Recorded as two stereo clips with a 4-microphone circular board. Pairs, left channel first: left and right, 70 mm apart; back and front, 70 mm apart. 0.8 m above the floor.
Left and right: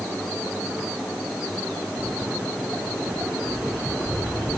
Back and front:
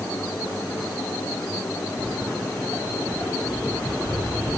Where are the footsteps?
150° right, 3 m; by 4.6 s 170° right, 6 m.